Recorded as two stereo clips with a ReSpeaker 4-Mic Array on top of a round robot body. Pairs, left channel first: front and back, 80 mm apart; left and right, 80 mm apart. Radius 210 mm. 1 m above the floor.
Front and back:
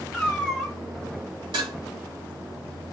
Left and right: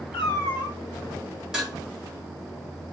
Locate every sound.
0.1 s a cat meowing: 90° left, 1.8 m
1.5 s dishes clattering: 175° right, 2.5 m